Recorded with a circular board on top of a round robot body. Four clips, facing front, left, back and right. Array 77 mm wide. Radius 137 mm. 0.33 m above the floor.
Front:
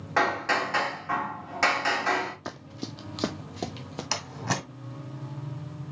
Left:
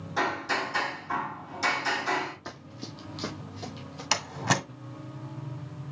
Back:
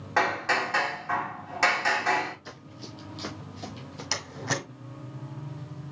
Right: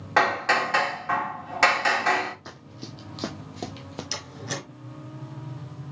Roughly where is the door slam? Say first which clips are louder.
Left 11 dB, front 1 dB; left.